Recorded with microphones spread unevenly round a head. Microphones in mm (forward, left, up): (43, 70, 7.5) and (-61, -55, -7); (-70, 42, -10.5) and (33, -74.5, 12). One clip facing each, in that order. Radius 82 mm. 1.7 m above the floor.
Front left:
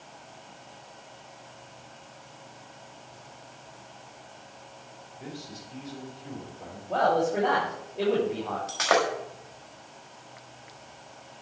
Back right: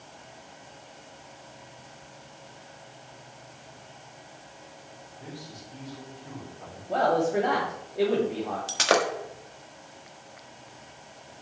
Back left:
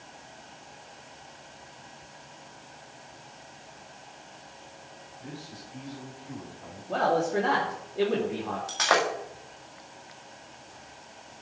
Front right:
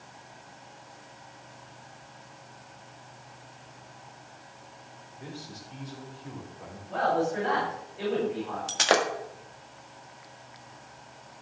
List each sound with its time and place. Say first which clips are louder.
5.2 s a man speaking: front left 2 dB, even; 15° right, 4.5 m
6.9 s a man speaking: even, back left 1 dB; 150° left, 3.5 m
8.7 s breaking glass: even, front right 1 dB; 85° right, 1.5 m